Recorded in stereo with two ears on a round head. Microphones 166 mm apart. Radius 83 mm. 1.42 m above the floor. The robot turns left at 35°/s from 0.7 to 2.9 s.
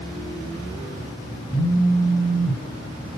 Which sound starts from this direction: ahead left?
A phone buzzing, at 1.5 s.